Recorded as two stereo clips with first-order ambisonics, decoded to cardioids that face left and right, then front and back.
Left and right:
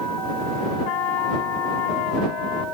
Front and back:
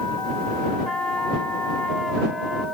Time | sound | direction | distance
0.8 | a trumpet | 80° left | ?